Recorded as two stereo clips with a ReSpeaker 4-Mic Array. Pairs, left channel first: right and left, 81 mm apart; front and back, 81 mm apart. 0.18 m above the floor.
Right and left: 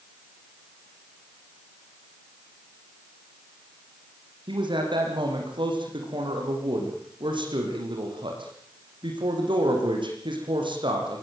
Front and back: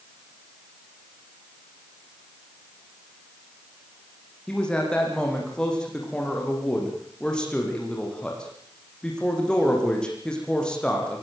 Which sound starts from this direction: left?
A man speaking, at 4.5 s.